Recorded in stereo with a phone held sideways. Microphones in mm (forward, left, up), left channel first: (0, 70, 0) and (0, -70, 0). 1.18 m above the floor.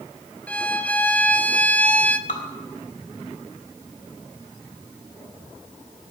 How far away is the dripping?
About 1.8 m.